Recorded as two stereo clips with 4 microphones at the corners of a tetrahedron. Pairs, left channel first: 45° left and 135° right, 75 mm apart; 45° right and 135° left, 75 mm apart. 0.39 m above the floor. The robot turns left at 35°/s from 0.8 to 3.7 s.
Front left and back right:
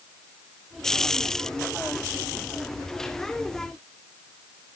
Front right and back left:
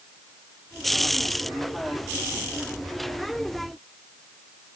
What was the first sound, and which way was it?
Only background noise.